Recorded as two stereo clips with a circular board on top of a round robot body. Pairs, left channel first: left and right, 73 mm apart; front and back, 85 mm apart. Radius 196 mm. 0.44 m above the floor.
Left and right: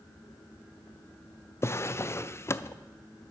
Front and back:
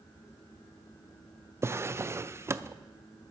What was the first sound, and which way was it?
A drawer, 130° left.